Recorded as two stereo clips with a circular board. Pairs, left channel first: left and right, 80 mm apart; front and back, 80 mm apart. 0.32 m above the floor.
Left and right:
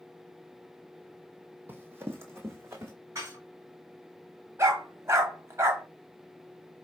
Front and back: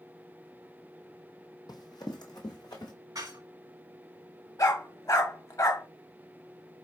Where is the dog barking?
40° right, 0.8 m.